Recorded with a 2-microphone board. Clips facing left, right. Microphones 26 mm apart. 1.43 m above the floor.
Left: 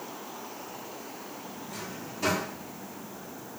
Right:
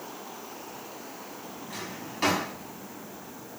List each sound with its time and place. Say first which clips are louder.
1.7 s a drawer: right 2 dB; 70° right (ahead or behind), 2 m